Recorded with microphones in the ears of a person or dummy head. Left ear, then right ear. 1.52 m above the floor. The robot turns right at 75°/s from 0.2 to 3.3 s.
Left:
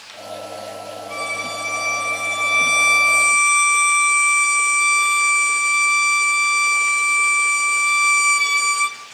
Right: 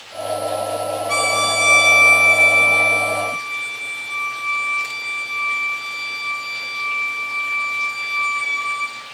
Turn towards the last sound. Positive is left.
turn(degrees=60)